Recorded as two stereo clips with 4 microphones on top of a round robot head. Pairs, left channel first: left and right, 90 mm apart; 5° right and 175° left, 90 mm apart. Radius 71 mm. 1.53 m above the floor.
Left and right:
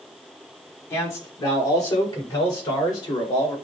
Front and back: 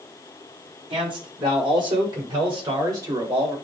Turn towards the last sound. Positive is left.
turn(degrees=130)